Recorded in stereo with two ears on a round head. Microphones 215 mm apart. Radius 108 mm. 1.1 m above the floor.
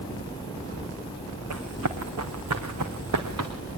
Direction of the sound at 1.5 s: 65° right (ahead or behind).